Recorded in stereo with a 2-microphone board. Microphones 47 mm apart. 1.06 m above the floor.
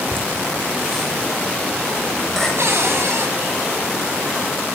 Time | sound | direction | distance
0.1 | laughter | 10° left (ahead or behind) | 5.5 m
2.6 | a cupboard door | 65° right (ahead or behind) | 5 m